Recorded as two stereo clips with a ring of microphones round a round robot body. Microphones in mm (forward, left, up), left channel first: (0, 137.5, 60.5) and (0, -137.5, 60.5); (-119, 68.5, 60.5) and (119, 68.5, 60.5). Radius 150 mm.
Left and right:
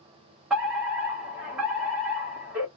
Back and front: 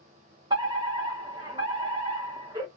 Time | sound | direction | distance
0.5 | a fire alarm | 10° right | 1.7 m